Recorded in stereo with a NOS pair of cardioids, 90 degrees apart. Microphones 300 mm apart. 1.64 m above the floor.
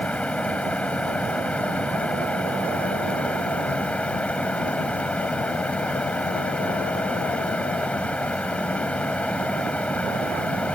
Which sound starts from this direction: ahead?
A fan, at 0.0 s.